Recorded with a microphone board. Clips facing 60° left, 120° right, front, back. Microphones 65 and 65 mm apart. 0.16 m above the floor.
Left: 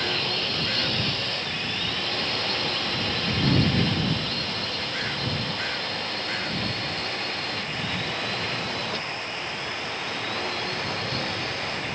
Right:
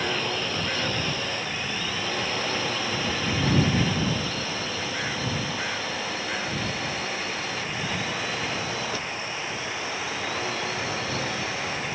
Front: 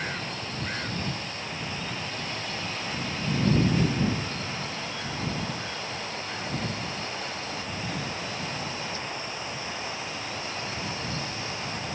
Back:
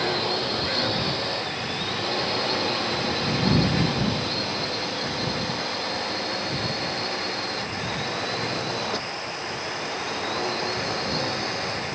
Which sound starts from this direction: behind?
A drone, at 0.0 s.